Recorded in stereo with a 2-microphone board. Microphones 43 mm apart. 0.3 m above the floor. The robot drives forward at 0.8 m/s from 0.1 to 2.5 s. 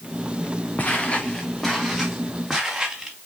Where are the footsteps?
35° left (ahead or behind), 1.4 m; by 3.2 s 10° right (ahead or behind), 3.5 m.